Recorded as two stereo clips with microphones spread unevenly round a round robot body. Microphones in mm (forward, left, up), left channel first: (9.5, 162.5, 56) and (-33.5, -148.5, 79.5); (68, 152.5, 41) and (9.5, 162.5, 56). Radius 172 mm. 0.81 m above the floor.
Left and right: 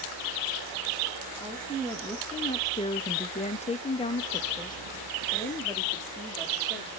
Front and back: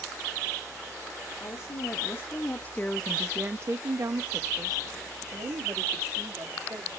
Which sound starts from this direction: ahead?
A woman speaking, at 1.4 s.